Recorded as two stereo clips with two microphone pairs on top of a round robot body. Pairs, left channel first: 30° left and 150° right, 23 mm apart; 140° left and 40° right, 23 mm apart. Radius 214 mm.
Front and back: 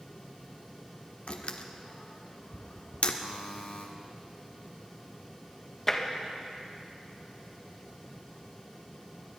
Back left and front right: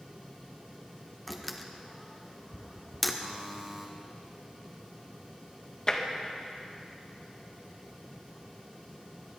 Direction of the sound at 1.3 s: 55° left.